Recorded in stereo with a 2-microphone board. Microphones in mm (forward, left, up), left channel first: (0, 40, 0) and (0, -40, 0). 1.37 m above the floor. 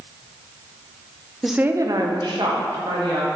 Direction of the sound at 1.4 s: 5° left (ahead or behind).